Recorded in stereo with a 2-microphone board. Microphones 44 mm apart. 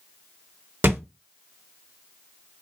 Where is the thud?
55° right (ahead or behind), 1.8 m.